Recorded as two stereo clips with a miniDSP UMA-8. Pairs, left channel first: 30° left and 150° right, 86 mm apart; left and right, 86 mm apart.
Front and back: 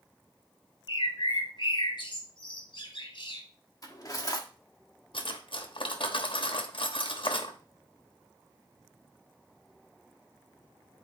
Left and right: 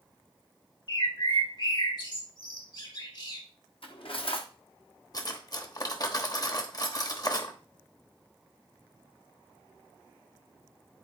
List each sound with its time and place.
0.9 s a bird: 60° left, 1.8 m
3.8 s cutlery clinking: 80° left, 1.2 m
5.1 s cutlery clinking: 45° left, 1.0 m